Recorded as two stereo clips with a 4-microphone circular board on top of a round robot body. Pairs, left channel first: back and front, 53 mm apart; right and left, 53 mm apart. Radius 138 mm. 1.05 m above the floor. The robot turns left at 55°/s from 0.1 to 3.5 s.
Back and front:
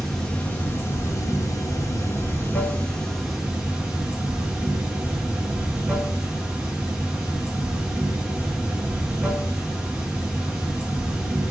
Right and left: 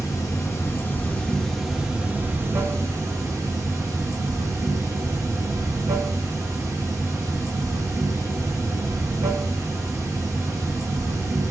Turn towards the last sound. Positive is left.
turn(degrees=75)